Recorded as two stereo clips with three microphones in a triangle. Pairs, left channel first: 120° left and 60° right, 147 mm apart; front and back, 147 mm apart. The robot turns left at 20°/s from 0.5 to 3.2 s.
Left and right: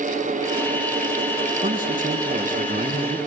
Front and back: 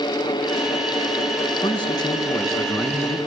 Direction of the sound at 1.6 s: 50° right.